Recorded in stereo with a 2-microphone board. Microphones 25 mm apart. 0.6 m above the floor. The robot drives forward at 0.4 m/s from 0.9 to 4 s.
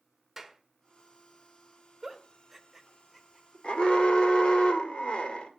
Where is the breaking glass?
No breaking glass in this recording.